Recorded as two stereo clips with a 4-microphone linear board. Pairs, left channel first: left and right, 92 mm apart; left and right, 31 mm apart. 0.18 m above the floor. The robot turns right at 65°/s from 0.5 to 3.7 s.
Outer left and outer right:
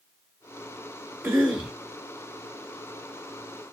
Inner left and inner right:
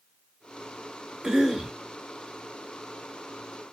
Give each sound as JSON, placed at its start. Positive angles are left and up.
{"t": 1.2, "sound": "a cough", "azimuth_deg": -40, "distance_m": 2.0}